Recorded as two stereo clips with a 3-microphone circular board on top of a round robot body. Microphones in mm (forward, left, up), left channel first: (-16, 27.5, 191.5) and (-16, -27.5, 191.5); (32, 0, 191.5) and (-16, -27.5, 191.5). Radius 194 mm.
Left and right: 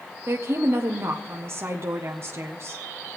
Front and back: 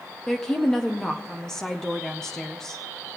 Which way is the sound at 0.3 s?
50° right.